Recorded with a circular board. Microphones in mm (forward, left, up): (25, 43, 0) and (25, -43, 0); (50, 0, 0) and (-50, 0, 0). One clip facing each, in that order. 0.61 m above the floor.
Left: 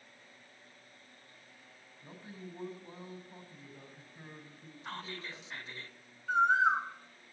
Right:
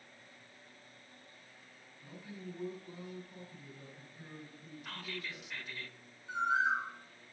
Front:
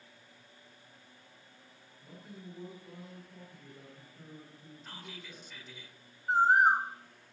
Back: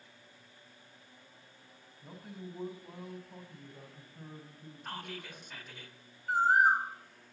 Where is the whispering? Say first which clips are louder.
Left 2 dB, back 7 dB; 150° left, 1.8 m.